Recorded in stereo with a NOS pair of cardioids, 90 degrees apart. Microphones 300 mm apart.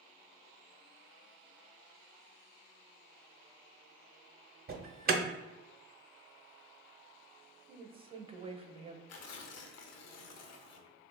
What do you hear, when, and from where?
4.7 s an alarm: 30° right, 0.7 m
7.7 s a woman speaking: 20° right, 0.8 m
9.1 s tearing paper: 60° left, 0.6 m